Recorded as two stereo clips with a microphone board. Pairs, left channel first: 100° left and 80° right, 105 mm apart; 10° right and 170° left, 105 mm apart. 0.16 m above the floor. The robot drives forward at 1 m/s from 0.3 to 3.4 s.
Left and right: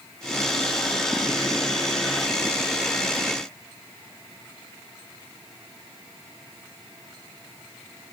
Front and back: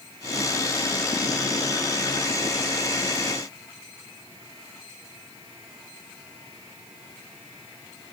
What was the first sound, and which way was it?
Only background noise.